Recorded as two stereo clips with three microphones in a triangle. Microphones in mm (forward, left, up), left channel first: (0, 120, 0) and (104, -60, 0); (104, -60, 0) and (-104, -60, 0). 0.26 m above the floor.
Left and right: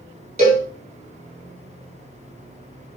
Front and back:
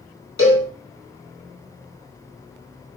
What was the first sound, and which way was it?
A cowbell, straight ahead.